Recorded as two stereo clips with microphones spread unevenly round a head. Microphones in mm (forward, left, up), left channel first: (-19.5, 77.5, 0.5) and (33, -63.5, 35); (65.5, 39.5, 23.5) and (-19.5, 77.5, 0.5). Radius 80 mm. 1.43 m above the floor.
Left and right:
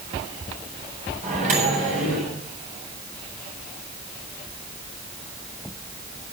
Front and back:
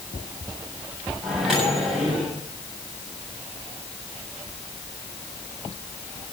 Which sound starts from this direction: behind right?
A microwave, at 1.2 s.